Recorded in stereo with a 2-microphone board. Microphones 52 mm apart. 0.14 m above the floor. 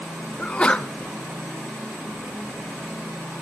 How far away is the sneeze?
About 1.2 m.